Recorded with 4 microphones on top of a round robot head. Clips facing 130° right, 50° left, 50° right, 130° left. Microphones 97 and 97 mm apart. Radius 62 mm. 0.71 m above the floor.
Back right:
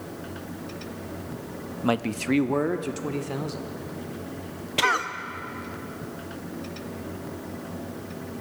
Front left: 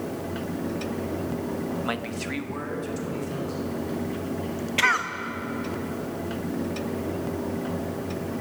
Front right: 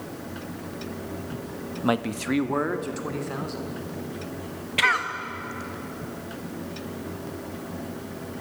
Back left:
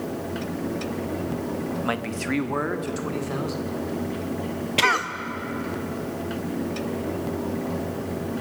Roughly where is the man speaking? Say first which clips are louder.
Back right 5 dB, front right 2 dB; right.